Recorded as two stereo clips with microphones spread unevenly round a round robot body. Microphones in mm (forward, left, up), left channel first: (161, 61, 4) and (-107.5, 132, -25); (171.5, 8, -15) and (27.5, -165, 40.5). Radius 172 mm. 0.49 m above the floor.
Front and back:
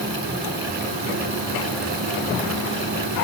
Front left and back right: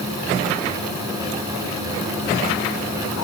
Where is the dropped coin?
No dropped coin in this recording.